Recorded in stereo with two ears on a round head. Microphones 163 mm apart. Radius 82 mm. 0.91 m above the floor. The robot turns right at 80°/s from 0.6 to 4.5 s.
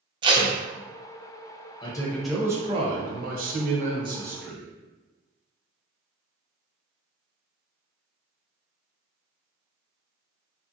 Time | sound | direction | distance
0.2 | tape being pulled | 25° right (ahead or behind) | 0.5 m
1.8 | a man speaking | 145° left | 0.7 m